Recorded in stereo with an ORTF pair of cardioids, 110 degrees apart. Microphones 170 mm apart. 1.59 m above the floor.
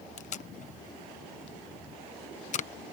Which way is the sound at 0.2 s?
45° left.